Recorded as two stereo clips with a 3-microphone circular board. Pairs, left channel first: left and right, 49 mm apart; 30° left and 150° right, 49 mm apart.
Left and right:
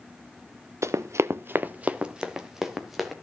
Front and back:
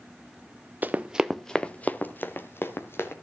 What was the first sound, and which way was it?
Running footsteps, 100° right.